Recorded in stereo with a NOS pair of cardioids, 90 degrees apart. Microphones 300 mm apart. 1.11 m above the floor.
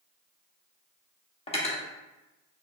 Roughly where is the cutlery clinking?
Ahead.